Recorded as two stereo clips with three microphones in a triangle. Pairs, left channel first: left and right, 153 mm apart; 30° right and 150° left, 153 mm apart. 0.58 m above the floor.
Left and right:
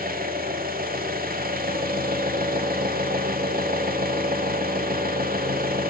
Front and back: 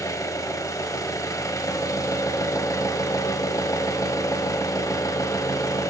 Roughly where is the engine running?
Right.